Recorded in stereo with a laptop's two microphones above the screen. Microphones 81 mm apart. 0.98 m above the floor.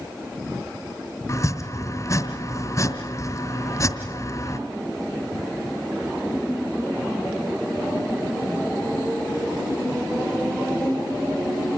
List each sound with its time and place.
1.3 s chopping: 40° left (ahead or behind), 2 m